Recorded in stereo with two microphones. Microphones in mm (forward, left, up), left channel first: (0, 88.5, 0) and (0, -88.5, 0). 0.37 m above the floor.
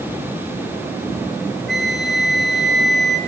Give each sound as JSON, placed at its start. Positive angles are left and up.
{"t": 1.7, "sound": "a flute", "side_deg": 80, "distance_m": 5.5}